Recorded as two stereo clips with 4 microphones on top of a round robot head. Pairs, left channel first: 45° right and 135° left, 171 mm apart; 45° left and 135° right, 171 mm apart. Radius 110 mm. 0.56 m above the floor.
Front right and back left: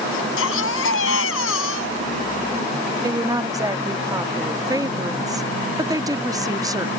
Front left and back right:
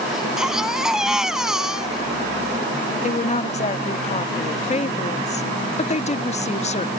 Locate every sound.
0.1 s a baby crying: 50° right
3.0 s a woman speaking: 75° left